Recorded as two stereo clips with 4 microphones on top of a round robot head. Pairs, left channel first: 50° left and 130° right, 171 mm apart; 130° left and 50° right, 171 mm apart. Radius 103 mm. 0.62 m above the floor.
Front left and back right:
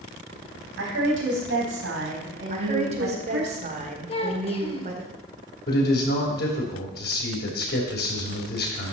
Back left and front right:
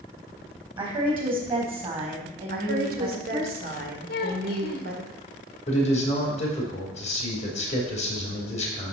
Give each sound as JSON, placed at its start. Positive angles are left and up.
{"t": 0.8, "sound": "a woman speaking", "azimuth_deg": -115, "distance_m": 3.5}
{"t": 2.5, "sound": "a woman speaking", "azimuth_deg": -80, "distance_m": 2.0}
{"t": 4.1, "sound": "a child speaking", "azimuth_deg": 105, "distance_m": 1.7}
{"t": 5.7, "sound": "a man speaking", "azimuth_deg": 75, "distance_m": 3.5}